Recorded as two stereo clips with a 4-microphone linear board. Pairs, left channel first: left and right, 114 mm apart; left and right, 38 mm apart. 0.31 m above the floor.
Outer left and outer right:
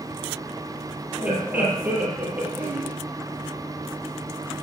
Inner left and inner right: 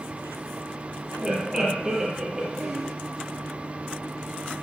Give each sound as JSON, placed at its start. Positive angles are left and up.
{"t": 1.2, "sound": "laughter", "side_deg": -15, "distance_m": 6.5}